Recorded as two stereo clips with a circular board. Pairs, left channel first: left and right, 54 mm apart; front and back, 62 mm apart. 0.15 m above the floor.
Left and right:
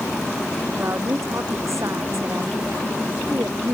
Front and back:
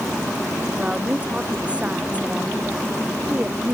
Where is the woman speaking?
110° right.